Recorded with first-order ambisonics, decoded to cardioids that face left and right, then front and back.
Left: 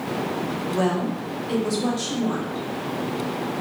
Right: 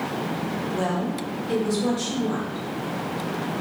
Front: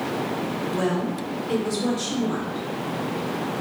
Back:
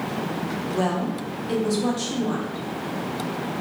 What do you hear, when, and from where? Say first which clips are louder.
0.7 s a woman speaking: left 3 dB, back 1 dB; 145° left, 0.6 m